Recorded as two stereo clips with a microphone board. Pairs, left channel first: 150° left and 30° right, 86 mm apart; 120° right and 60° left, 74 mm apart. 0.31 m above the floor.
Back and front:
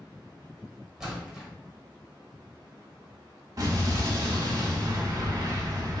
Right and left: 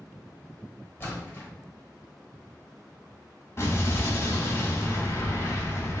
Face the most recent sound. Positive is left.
turn(degrees=-70)